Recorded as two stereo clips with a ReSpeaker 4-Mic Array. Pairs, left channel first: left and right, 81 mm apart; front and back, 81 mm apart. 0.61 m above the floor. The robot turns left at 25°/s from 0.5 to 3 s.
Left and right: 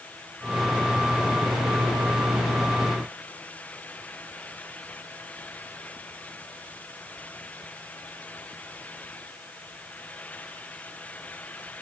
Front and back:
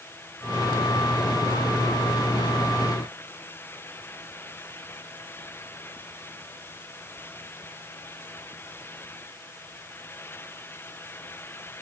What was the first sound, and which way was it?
Only background noise.